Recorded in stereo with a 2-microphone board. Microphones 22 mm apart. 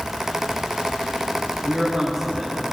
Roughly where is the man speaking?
Centre.